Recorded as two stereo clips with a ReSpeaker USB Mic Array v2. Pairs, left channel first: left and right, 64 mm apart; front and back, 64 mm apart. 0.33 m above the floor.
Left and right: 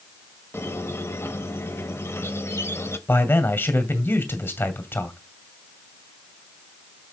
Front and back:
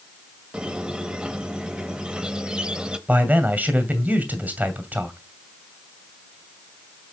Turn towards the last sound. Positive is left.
turn(degrees=125)